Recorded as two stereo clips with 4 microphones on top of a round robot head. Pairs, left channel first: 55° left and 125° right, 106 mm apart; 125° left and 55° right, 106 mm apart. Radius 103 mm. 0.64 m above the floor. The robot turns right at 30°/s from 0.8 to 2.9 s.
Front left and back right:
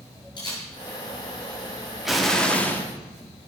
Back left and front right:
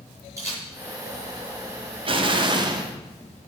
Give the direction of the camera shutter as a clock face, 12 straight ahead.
12 o'clock.